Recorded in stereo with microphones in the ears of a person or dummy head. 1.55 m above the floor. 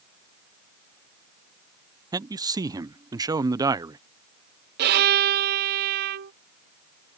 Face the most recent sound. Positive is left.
turn(degrees=-55)  # may be behind; listen again after turning